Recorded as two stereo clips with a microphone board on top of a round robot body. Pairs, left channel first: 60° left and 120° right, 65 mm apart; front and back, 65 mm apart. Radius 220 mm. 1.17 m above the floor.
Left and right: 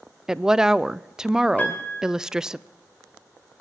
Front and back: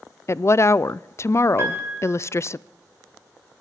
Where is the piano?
125° left, 2.5 m.